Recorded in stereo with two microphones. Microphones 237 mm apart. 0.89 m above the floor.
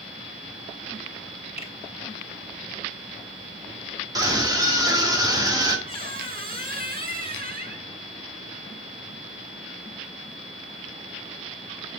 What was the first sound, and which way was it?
A finger snap, 25° left (ahead or behind).